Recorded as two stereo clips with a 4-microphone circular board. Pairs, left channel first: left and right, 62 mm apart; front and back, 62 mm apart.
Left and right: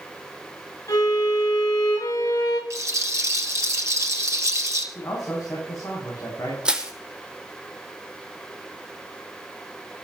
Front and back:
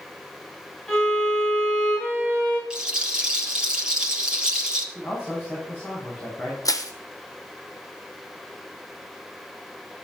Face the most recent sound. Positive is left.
turn(degrees=-15)